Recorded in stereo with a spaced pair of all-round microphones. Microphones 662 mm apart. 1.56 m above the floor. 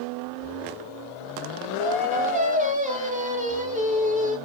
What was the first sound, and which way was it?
Singing, 15° right (ahead or behind).